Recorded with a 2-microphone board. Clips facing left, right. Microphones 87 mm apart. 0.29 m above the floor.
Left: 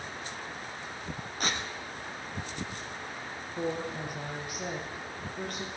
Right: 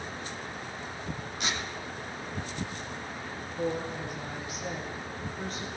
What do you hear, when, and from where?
1.4 s tearing paper: 45° left (ahead or behind), 2.5 m
3.6 s a woman speaking: 60° left (ahead or behind), 7 m